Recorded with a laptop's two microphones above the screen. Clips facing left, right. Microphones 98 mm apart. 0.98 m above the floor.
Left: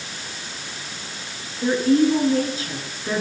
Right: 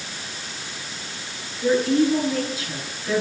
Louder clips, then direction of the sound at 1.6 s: Left 1 dB; 35° left (ahead or behind).